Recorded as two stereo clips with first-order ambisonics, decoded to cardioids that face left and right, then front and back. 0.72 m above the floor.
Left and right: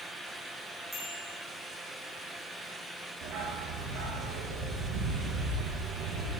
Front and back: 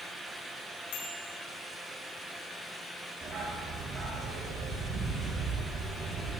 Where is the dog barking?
115° right, 8.5 m.